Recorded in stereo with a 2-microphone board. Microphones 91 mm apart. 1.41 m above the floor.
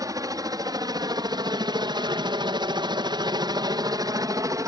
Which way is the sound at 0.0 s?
40° right (ahead or behind).